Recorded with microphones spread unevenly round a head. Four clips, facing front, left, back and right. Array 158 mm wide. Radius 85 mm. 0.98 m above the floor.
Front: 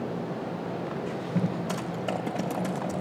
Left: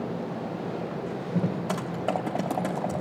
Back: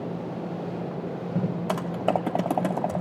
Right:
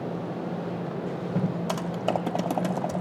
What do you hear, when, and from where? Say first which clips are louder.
1.7 s typing on a keyboard: right 1 dB, back 5 dB; 170° right, 0.6 m